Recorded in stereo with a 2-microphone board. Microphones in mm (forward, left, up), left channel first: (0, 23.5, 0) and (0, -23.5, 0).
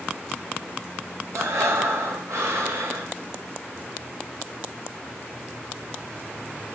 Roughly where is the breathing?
Right.